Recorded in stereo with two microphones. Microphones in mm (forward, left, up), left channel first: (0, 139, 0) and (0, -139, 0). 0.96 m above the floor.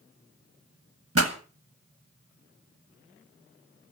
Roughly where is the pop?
Right.